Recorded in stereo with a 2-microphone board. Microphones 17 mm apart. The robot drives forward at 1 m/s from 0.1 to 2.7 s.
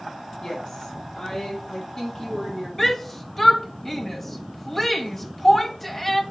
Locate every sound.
0.4 s a woman speaking: 40° left (ahead or behind), 4.5 m; by 2.7 s 30° left (ahead or behind), 6.5 m
2.8 s a shout: 15° left (ahead or behind), 1.0 m